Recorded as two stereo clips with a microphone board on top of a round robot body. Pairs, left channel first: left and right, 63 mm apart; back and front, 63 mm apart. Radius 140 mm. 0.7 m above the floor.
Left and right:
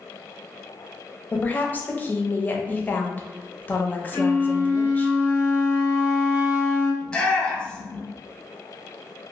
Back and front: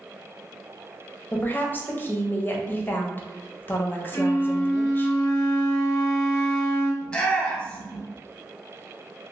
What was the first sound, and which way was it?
A woman speaking, 140° left.